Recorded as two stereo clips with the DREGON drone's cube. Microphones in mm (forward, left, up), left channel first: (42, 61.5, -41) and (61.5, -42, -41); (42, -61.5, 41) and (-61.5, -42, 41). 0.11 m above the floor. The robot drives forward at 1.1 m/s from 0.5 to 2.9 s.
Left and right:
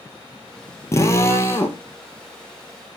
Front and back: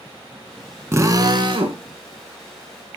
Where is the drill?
130° left, 1.0 m; by 1.8 s 160° left, 1.6 m.